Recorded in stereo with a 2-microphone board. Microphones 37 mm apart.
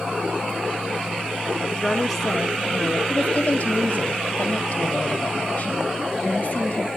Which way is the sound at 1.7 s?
5° left (ahead or behind).